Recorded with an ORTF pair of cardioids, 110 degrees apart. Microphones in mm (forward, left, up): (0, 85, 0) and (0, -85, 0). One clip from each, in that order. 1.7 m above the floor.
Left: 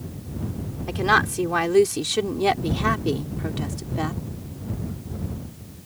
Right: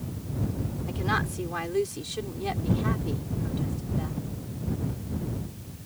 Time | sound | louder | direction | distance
0.9 | a woman speaking | left 10 dB | 50° left | ?